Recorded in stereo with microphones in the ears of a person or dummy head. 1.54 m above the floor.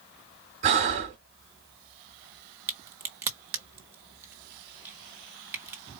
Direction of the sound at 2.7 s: 15° right (ahead or behind).